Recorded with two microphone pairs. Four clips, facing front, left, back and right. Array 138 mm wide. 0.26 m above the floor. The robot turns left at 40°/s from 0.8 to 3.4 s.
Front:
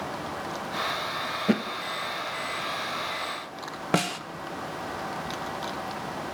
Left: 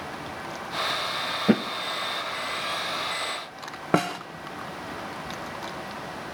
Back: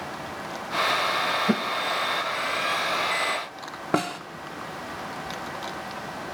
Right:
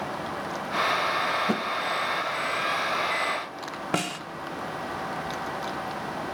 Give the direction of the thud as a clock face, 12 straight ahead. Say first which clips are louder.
Left 6 dB, front 3 dB; 9 o'clock.